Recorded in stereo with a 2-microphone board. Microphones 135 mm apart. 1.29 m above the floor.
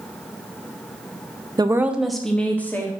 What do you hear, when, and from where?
1.6 s a woman speaking: 30° right (ahead or behind), 0.6 m; by 2.9 s 15° left (ahead or behind), 1.9 m